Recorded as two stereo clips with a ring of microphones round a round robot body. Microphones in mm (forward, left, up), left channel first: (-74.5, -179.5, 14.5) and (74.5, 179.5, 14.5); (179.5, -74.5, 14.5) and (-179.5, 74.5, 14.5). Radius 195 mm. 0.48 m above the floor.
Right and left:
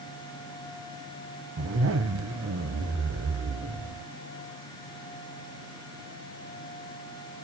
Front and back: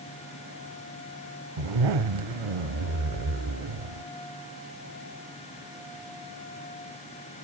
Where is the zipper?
125° left, 1.1 m.